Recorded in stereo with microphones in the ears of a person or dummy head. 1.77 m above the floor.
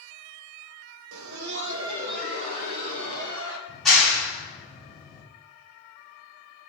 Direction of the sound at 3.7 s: Centre (ahead or behind).